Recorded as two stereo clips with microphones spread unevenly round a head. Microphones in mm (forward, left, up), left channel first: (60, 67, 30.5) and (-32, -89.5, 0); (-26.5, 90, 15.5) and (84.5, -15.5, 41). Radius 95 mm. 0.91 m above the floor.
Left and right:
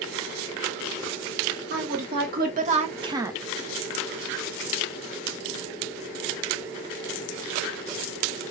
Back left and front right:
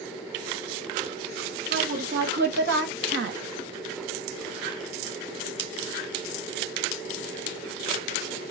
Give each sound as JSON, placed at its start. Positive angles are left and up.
{"t": 1.7, "sound": "a woman speaking", "azimuth_deg": -90, "distance_m": 1.6}